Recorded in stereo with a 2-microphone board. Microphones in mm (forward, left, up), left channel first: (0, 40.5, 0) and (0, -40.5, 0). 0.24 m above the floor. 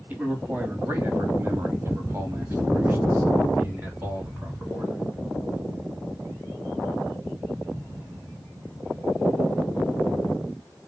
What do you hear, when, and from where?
0.1 s a man speaking: 20° right (ahead or behind), 1.3 m; by 5.0 s 25° right (ahead or behind), 2 m